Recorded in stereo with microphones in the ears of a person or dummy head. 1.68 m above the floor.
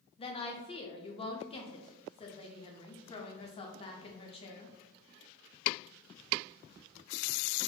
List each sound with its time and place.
0.2 s a woman speaking: 30° left (ahead or behind), 0.6 m